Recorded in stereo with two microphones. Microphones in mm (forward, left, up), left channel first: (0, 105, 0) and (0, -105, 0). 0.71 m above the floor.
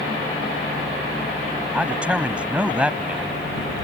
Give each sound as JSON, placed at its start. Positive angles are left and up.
{"t": 1.7, "sound": "a man speaking", "side_deg": -5}